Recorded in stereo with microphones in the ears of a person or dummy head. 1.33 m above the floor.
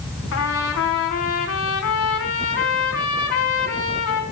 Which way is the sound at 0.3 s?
75° left (ahead or behind).